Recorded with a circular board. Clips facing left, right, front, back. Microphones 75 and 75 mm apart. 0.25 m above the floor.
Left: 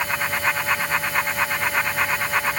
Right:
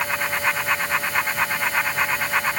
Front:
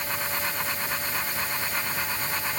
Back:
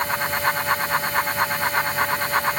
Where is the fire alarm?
No fire alarm in this recording.